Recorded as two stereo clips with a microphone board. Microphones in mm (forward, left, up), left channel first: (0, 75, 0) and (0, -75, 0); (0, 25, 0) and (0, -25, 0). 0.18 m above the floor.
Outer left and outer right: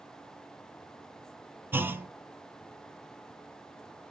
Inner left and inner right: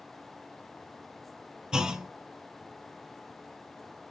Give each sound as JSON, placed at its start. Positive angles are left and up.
{"t": 1.7, "sound": "a clunk", "side_deg": -15, "distance_m": 0.6}